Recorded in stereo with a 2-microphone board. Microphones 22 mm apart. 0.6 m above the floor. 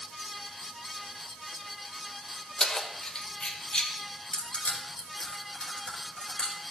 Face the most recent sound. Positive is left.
turn(degrees=35)  # may be behind; listen again after turning